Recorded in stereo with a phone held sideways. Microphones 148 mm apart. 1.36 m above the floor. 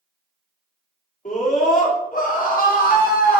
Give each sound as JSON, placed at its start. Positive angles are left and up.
{"t": 1.2, "sound": "a scream", "side_deg": 60, "distance_m": 3.5}